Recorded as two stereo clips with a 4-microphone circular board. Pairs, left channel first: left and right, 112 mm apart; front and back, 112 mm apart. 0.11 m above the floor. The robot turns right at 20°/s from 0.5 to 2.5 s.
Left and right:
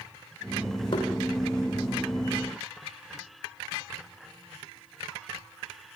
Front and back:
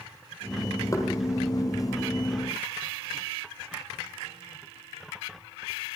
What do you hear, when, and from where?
0.9 s knocking: 55° left, 3.5 m; by 1.1 s 60° left, 3.5 m